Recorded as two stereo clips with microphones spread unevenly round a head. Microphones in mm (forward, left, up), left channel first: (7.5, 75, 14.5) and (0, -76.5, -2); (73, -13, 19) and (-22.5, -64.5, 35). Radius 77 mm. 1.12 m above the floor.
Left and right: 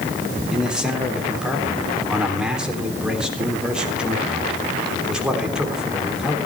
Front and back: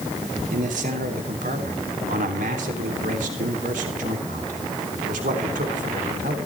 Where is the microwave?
No microwave in this recording.